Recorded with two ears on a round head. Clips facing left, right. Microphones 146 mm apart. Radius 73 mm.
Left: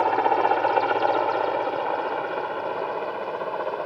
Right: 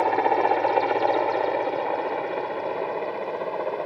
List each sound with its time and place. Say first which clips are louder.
0.0 s a helicopter: even; 10° right (ahead or behind)